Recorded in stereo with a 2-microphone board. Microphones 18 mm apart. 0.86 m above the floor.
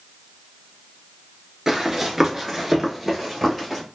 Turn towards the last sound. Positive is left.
turn(degrees=5)  # may be behind; listen again after turning